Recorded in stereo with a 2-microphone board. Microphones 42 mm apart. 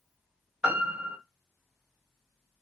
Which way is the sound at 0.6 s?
35° right (ahead or behind).